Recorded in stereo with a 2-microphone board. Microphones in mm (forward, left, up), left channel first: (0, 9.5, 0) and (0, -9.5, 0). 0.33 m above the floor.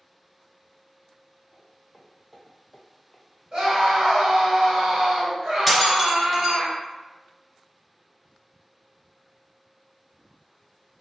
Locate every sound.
1.5 s footsteps: centre (ahead or behind), 1.4 m; by 3.2 s 20° left (ahead or behind), 0.5 m
3.5 s a scream: 50° right (ahead or behind), 1.8 m
5.7 s breaking glass: 5° right (ahead or behind), 0.9 m